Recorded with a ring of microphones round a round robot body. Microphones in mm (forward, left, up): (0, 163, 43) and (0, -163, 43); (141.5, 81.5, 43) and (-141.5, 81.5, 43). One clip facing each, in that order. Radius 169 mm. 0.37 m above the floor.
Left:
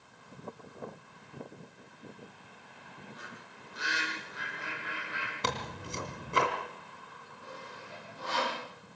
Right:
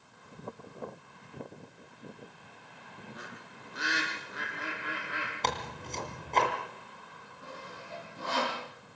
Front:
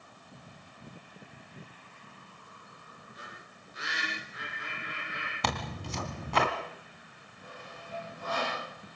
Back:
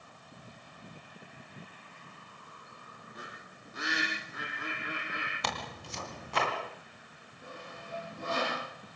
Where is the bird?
125° right, 5.5 m.